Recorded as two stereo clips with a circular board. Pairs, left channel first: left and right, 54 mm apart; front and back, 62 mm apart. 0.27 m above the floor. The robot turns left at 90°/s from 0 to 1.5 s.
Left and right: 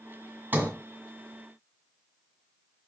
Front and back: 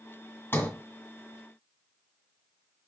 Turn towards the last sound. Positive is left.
turn(degrees=-130)